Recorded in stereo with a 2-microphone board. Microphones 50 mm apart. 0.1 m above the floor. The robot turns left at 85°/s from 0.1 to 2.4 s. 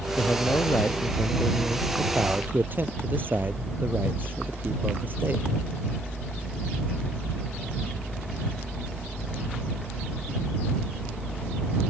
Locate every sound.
0.2 s a man speaking: 140° left; by 5.5 s 50° right